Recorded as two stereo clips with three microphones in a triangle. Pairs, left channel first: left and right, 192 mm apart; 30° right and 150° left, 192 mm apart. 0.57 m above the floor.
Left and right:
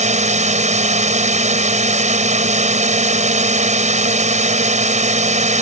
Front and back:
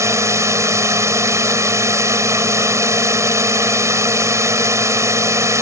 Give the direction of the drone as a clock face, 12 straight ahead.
5 o'clock.